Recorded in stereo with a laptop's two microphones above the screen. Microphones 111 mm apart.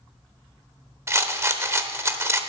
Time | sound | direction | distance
1.1 | a rattle | 25° right (ahead or behind) | 0.7 m